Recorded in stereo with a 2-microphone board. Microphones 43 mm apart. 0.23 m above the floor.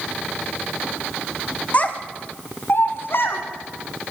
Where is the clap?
I don't hear a clap.